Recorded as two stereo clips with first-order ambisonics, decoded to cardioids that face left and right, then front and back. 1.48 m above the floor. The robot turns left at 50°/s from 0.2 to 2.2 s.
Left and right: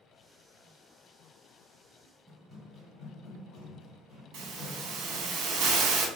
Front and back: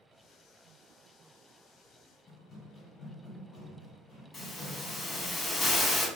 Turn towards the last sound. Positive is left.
turn(degrees=-75)